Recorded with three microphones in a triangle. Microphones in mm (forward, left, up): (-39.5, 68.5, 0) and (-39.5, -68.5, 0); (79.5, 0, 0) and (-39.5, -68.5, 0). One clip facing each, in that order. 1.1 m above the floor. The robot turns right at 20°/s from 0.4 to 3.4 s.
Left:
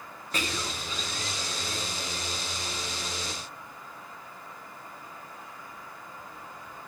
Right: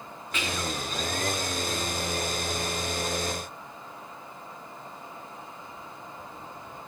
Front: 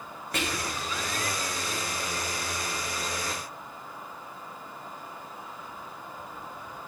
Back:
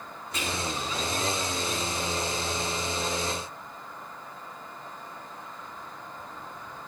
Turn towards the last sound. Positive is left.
turn(degrees=105)